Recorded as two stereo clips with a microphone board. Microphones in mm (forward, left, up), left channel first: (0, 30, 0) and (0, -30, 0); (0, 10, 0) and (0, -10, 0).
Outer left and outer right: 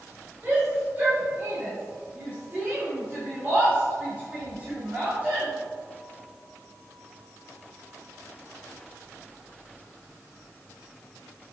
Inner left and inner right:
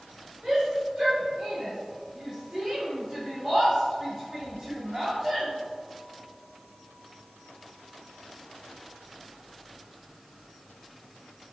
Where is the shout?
35° right (ahead or behind), 3 m; by 5.5 s 30° right (ahead or behind), 5.5 m.